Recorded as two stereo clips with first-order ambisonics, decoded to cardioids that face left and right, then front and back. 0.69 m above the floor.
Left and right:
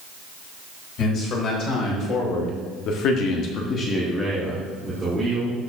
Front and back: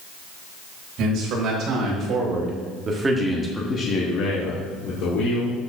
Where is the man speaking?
135° left, 4 m; by 5.6 s 15° right, 3 m.